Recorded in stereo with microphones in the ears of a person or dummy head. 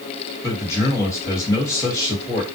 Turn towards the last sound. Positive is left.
turn(degrees=20)  # may be behind; listen again after turning